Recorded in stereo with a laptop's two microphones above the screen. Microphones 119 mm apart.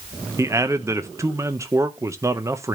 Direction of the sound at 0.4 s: 25° right (ahead or behind).